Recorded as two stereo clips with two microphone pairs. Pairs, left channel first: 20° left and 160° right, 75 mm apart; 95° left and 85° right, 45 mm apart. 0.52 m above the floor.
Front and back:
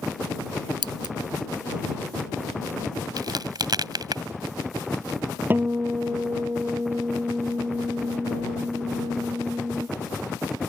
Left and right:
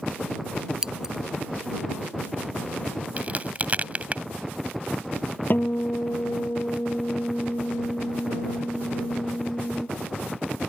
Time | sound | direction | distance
0.8 | scissors | 160° right | ?
3.2 | a crack | 135° right | ?
5.5 | a guitar | 140° left | ?